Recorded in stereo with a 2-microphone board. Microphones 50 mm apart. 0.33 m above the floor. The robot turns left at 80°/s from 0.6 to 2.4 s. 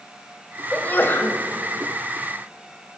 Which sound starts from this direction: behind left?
A sneeze, at 0.7 s.